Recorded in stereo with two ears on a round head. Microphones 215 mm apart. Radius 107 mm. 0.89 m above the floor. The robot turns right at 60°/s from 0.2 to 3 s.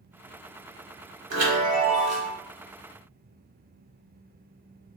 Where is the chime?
100° right, 1.1 m; by 2.3 s 40° right, 1.1 m.